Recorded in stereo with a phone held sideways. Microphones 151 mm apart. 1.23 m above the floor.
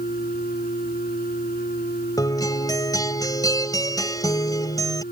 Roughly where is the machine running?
Left.